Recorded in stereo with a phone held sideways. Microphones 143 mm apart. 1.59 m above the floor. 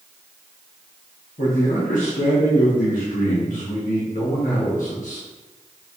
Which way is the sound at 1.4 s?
65° left (ahead or behind).